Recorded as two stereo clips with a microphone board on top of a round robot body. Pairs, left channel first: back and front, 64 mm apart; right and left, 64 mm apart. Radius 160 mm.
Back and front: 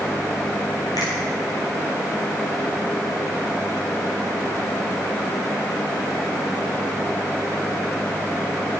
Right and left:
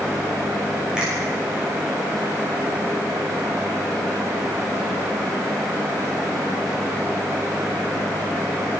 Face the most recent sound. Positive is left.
turn(degrees=170)